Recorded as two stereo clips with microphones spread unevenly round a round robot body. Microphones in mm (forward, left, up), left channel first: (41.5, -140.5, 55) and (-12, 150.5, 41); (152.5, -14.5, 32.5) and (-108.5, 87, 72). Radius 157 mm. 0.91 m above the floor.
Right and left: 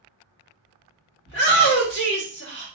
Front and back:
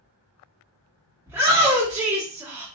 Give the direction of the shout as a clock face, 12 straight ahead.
4 o'clock.